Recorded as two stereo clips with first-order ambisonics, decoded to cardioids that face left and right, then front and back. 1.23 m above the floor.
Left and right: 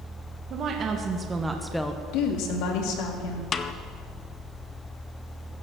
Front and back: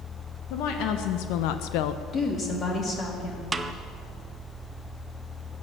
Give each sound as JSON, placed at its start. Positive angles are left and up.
{"t": 0.5, "sound": "a woman speaking", "azimuth_deg": -35, "distance_m": 1.2}
{"t": 2.1, "sound": "a woman speaking", "azimuth_deg": 70, "distance_m": 2.5}
{"t": 3.5, "sound": "a snare drum", "azimuth_deg": 120, "distance_m": 0.6}